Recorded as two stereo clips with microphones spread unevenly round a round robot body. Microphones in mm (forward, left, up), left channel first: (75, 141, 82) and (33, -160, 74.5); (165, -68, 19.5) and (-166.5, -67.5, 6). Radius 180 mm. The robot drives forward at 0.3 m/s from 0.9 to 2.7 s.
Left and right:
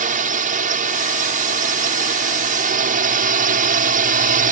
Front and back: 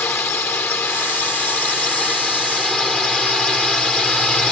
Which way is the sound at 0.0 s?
80° right.